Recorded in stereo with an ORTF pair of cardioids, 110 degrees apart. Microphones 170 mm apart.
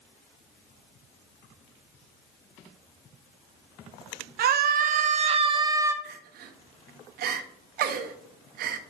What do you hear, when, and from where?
4.4 s a scream: 65° right, 1.4 m; by 5.9 s 15° right, 1.2 m
6.0 s crying: 65° right, 0.9 m